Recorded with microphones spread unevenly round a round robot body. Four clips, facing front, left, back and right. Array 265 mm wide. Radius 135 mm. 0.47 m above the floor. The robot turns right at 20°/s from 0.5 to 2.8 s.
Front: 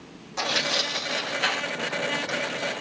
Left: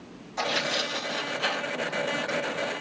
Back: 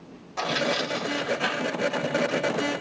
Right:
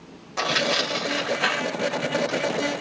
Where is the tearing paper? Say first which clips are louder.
Right 4 dB, back 3 dB; 105° right, 2.0 m; by 2.4 s 65° right, 2.0 m.